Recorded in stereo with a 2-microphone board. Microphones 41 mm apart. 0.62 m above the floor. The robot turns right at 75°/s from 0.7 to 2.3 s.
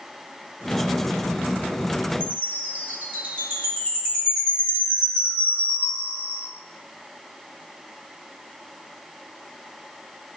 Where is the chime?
60° right (ahead or behind), 3 m; by 6.4 s 55° right (ahead or behind), 3 m.